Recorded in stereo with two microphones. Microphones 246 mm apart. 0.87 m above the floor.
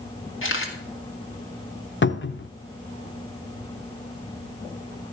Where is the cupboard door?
50° left (ahead or behind), 0.6 m.